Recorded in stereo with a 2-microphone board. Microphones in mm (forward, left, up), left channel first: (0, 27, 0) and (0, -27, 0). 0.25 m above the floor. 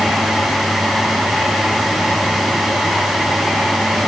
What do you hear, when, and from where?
Only background noise.